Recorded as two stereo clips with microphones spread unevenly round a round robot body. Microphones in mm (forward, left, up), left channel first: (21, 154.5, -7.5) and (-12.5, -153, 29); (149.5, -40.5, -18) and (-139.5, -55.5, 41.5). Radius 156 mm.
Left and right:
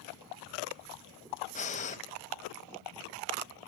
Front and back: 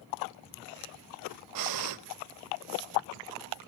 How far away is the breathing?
About 0.9 m.